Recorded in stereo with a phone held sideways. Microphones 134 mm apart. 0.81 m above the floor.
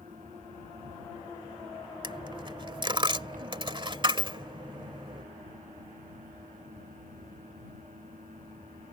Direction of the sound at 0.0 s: 85° right.